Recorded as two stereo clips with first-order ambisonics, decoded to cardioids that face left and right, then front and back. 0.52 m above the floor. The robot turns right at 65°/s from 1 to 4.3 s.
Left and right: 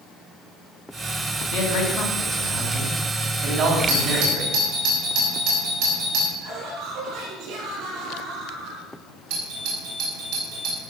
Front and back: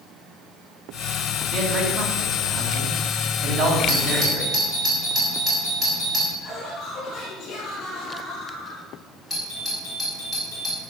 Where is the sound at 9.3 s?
90° right, 5.5 m.